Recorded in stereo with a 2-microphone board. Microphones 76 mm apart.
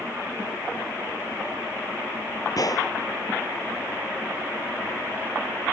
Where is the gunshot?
55° left (ahead or behind).